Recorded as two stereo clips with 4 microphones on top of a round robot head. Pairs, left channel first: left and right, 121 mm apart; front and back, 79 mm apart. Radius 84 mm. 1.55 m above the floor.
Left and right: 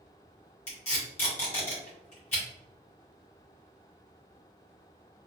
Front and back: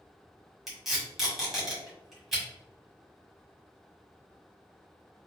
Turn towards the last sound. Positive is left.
turn(degrees=95)